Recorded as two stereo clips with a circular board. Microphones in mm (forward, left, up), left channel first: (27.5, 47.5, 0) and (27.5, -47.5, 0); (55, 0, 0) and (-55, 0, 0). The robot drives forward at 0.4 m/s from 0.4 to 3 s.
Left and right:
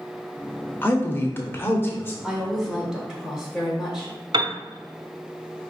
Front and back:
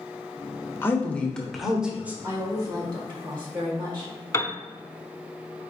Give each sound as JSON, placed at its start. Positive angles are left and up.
{"t": 0.8, "sound": "a woman speaking", "azimuth_deg": 50, "distance_m": 0.9}
{"t": 2.2, "sound": "a woman speaking", "azimuth_deg": -165, "distance_m": 0.8}
{"t": 4.3, "sound": "a piano", "azimuth_deg": -60, "distance_m": 0.6}